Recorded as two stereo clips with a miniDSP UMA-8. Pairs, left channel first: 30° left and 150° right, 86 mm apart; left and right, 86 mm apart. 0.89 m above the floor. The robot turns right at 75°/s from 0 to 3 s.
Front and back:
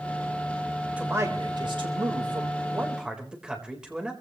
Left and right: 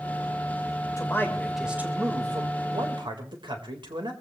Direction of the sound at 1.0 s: 135° left.